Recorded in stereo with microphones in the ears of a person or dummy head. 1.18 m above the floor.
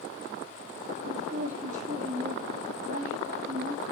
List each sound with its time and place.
1.1 s a woman speaking: 45° right (ahead or behind), 1.9 m